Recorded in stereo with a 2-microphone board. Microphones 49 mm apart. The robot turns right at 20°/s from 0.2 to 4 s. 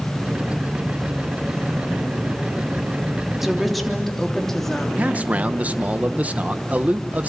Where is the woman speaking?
5° right (ahead or behind), 3 m; by 4.9 s 5° left (ahead or behind), 3 m.